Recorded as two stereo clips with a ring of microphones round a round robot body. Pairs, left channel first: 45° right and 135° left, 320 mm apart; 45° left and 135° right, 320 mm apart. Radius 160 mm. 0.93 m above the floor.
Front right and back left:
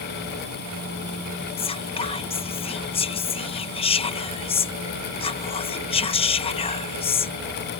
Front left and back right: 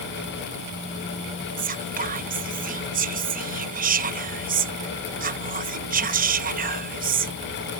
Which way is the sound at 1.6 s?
100° right.